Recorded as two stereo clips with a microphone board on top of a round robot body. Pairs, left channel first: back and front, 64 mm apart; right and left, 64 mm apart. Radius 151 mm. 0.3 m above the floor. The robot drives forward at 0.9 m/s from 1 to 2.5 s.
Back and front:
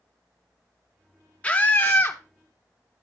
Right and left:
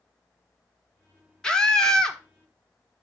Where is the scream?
150° right, 1.5 m; by 2.2 s 165° right, 1.9 m.